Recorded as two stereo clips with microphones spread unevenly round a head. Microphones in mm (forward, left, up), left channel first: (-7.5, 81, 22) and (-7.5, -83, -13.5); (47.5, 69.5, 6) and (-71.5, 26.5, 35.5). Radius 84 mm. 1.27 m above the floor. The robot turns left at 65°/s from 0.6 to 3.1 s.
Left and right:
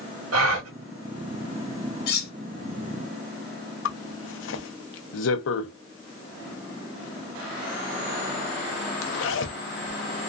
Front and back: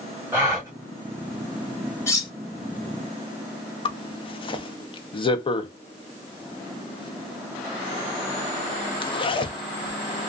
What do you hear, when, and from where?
0.3 s a gasp: 85° right, 1.0 m; by 0.7 s 90° right, 1.0 m
2.1 s cutlery clinking: 95° left, 1.2 m; by 2.3 s 80° left, 1.2 m
3.9 s a zipper: 70° left, 0.6 m